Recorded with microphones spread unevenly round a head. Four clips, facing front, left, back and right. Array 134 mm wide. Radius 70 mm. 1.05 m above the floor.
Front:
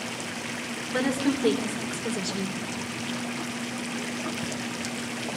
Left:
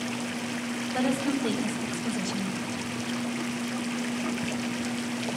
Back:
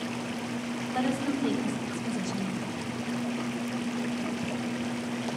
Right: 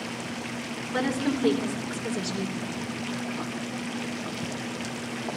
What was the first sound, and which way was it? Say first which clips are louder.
A woman speaking: right 1 dB, front 4 dB; 45° right.